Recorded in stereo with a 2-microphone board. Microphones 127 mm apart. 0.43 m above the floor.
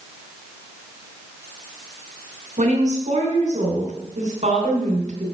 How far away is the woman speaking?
About 3.5 m.